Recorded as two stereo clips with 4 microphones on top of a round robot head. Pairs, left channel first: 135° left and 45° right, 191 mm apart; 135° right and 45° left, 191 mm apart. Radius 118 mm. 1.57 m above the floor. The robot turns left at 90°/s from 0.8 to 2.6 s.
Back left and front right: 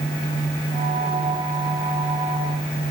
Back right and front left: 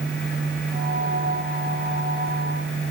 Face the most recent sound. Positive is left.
No sound to turn to.